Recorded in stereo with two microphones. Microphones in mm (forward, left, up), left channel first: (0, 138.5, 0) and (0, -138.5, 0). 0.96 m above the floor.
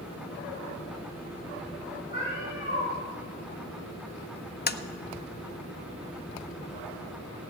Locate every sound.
2.1 s a cat meowing: 40° left (ahead or behind), 6.5 m
4.7 s tapping: 35° left (ahead or behind), 0.5 m